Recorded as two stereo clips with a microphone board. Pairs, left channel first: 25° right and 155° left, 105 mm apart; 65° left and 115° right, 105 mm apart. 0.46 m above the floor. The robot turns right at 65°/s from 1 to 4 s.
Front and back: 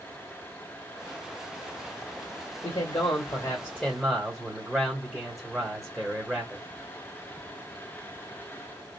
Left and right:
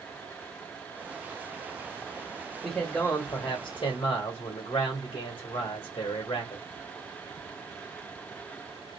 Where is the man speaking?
15° right, 1.5 m; by 6.6 s 75° left, 1.5 m.